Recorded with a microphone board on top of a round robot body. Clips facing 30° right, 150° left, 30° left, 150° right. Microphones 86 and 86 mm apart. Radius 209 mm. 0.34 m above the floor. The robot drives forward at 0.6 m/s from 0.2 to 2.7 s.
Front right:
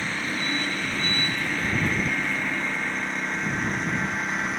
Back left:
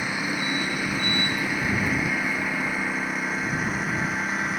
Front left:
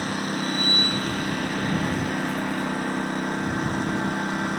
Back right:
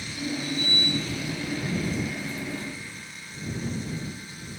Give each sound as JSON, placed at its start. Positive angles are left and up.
{"t": 0.0, "sound": "a lawn mower", "azimuth_deg": 70}